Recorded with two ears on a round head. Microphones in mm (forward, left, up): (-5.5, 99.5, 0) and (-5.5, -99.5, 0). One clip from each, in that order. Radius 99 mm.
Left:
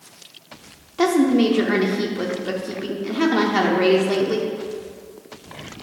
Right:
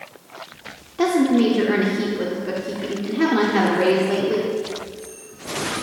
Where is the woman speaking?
20° left (ahead or behind), 0.8 m.